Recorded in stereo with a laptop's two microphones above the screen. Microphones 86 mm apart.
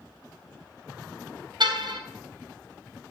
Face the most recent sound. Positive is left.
turn(degrees=-65)  # may be behind; listen again after turning